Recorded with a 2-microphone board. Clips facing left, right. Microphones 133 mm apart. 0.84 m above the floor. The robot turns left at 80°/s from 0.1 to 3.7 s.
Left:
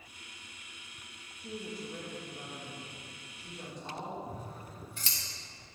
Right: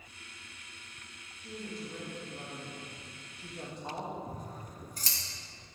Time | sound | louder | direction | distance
1.4 | a woman speaking | left 1 dB | 45° left | 1.3 m
4.3 | scissors | even | 40° right (ahead or behind) | 1.1 m